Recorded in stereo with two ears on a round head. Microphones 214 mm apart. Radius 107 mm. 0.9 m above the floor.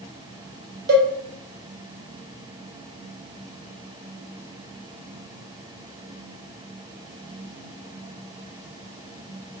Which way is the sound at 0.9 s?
45° right (ahead or behind).